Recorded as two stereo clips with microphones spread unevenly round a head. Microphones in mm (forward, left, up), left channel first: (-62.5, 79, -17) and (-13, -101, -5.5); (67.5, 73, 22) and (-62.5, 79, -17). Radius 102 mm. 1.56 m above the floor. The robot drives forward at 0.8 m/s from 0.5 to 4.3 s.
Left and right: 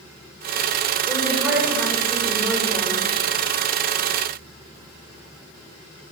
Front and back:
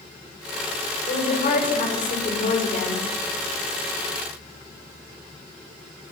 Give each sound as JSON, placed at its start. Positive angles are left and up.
{"t": 1.1, "sound": "a woman speaking", "azimuth_deg": 10, "distance_m": 5.5}